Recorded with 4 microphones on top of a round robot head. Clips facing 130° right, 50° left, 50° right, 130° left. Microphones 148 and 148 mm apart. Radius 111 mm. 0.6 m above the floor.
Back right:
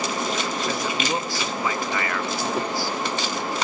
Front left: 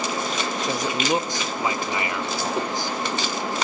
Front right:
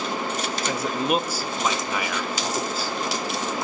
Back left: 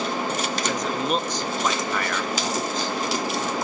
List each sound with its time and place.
0.6 s a man speaking: 20° left, 0.9 m